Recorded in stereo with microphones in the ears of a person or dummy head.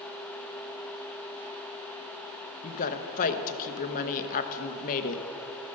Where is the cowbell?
I don't hear a cowbell.